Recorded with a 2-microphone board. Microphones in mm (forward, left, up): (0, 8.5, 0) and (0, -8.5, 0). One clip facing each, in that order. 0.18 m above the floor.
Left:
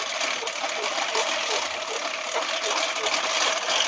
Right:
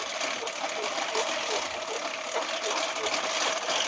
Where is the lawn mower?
20° left (ahead or behind).